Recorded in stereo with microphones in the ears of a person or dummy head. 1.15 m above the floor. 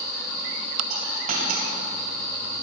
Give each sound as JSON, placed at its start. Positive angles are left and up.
{"t": 0.9, "sound": "a dropped coin", "side_deg": -45, "distance_m": 2.5}